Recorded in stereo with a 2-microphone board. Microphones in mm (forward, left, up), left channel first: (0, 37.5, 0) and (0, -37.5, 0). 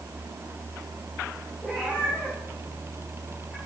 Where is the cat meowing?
15° left (ahead or behind), 5 m.